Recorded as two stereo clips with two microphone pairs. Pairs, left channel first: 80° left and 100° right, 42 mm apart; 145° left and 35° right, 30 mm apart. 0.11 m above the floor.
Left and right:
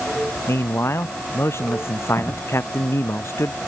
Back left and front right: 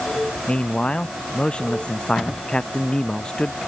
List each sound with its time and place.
0.5 s a man speaking: 95° left; by 3.6 s 85° left